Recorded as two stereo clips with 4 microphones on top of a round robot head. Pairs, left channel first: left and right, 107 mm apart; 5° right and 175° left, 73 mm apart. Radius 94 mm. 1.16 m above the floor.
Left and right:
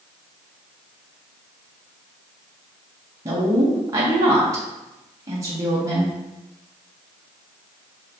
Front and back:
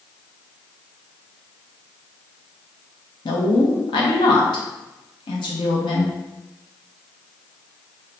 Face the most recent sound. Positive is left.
turn(degrees=-25)